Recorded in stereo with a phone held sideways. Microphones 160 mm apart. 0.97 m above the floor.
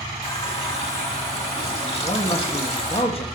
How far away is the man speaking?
About 1.2 m.